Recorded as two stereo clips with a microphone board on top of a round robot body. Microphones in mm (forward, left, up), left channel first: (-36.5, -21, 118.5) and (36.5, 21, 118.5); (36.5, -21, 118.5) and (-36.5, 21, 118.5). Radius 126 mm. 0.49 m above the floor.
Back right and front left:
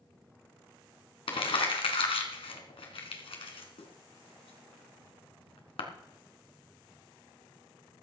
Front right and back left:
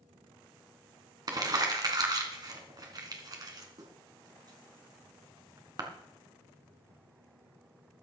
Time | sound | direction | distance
1.3 | crumpling | 165° right | 2.5 m